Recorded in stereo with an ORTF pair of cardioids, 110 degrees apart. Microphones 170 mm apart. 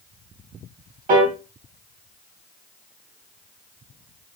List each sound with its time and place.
1.1 s a piano: 50° right, 0.9 m